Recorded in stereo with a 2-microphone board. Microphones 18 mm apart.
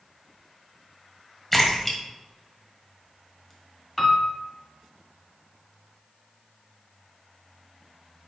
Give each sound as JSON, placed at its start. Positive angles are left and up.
{"t": 1.5, "sound": "a splash", "side_deg": 10, "distance_m": 1.4}
{"t": 4.0, "sound": "a piano", "side_deg": 5, "distance_m": 1.4}